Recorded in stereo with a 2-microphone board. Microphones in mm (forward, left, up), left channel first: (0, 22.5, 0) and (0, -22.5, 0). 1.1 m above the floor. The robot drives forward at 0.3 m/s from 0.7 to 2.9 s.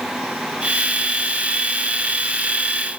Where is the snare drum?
I don't hear a snare drum.